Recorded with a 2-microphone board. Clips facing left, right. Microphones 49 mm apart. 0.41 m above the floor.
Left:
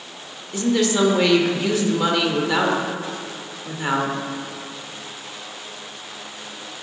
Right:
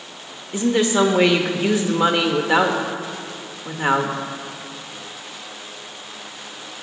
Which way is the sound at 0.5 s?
25° right (ahead or behind).